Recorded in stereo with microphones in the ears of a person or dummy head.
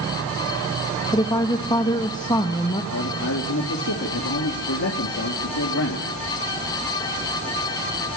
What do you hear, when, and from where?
1.1 s a woman speaking: 20° left (ahead or behind), 1.8 m
2.9 s a man speaking: 70° left (ahead or behind), 3 m